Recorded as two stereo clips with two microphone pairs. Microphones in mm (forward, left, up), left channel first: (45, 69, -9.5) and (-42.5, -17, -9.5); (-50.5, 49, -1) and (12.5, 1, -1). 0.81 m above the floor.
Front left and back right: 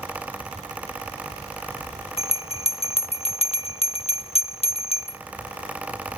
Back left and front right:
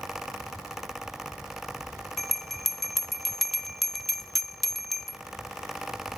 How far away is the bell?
About 1.0 m.